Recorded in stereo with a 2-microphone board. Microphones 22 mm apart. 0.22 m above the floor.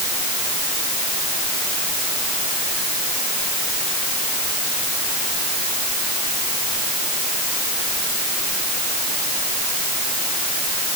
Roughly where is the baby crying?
No baby crying in this recording.